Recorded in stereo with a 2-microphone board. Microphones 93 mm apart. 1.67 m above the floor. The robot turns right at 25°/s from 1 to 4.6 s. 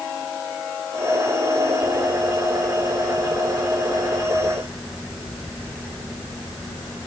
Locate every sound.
Only background noise.